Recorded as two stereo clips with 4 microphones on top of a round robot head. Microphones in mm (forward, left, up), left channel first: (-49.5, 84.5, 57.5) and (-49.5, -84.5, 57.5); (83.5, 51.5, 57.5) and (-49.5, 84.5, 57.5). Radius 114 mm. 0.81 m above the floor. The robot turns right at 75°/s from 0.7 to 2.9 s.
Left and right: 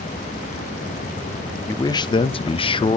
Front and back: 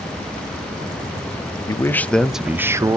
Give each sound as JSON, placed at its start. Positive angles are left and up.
{"t": 1.7, "sound": "a man speaking", "azimuth_deg": 30, "distance_m": 0.6}